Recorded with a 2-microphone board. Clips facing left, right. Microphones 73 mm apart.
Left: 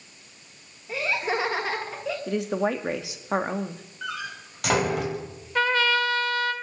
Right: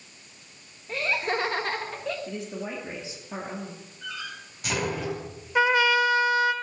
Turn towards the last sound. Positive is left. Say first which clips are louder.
# right 2 dB
turn(degrees=-15)  # may be behind; listen again after turning